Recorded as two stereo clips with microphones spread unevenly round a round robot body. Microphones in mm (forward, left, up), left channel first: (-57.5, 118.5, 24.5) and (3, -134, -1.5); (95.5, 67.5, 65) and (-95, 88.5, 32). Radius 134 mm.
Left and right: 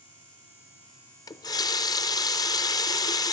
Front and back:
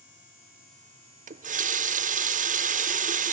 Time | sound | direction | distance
1.3 | a running tap | straight behind | 0.6 m